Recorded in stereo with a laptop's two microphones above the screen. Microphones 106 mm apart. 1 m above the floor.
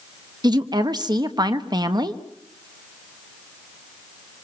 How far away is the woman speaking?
About 1.3 m.